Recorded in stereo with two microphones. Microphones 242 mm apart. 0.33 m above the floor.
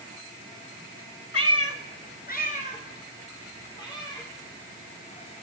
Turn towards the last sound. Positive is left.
turn(degrees=15)  # may be behind; listen again after turning